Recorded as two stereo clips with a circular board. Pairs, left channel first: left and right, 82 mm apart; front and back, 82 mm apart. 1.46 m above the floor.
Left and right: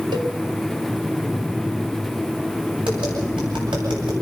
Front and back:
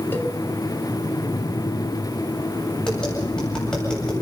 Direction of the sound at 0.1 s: 65° right.